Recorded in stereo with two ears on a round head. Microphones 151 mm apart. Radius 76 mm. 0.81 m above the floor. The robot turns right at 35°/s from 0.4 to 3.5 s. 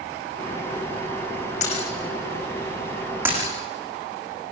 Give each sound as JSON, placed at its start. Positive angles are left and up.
{"t": 1.6, "sound": "breaking glass", "side_deg": 45, "distance_m": 10.0}